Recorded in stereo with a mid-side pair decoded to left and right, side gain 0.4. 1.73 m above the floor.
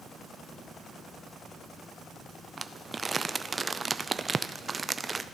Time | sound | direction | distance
2.6 | crumpling | 30° right | 0.6 m